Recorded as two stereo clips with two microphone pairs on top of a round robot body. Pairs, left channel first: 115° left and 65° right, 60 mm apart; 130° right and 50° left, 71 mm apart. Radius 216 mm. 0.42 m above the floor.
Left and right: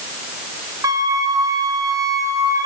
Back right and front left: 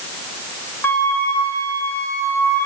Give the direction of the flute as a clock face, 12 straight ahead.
2 o'clock.